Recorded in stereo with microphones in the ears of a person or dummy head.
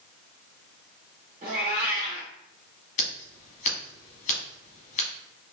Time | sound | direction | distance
1.4 | a cat meowing | 20° right (ahead or behind) | 0.9 m
3.0 | scissors | 45° left (ahead or behind) | 1.2 m